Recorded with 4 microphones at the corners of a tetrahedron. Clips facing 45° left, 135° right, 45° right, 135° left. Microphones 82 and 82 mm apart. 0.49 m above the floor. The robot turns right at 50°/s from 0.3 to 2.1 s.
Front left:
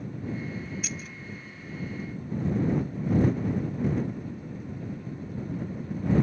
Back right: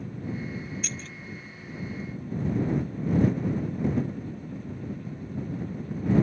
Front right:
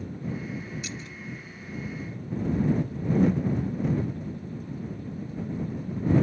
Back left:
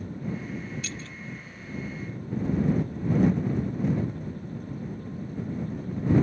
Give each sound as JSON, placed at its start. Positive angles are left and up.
{"t": 0.8, "sound": "keys jangling", "azimuth_deg": -30}